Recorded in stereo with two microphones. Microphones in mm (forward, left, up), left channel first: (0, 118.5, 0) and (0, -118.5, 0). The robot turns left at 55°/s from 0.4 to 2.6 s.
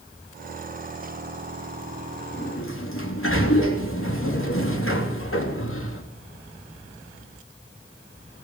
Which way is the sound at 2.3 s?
45° left (ahead or behind).